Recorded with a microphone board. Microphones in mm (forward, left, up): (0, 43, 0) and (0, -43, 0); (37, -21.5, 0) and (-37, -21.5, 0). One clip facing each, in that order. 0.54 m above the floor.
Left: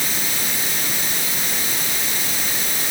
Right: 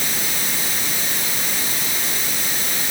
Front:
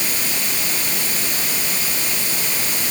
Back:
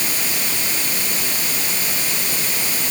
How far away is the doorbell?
I don't hear a doorbell.